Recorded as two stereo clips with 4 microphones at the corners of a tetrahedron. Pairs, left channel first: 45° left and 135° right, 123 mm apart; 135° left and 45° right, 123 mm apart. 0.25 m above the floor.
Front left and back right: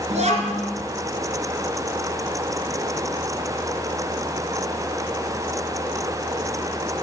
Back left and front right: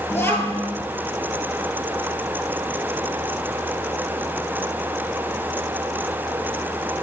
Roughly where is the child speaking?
Behind right.